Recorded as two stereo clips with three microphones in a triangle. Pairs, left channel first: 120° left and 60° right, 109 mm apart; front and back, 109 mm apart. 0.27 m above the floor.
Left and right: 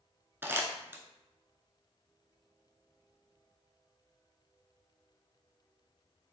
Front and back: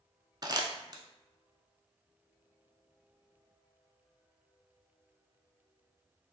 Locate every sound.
0.4 s crumpling: 130° right, 0.5 m